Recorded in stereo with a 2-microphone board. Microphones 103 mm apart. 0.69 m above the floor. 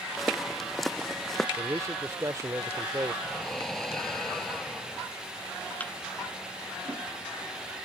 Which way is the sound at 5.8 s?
15° left (ahead or behind).